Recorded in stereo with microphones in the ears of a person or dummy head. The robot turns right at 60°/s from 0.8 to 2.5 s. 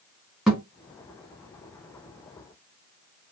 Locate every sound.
0.5 s a thud: centre (ahead or behind), 1.3 m